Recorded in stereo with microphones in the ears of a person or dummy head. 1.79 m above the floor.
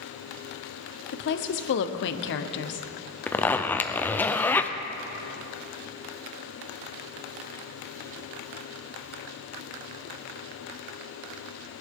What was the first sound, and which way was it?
A woman speaking, 55° left (ahead or behind).